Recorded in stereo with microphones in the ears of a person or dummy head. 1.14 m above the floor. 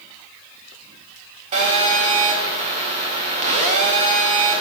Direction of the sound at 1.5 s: 30° right (ahead or behind).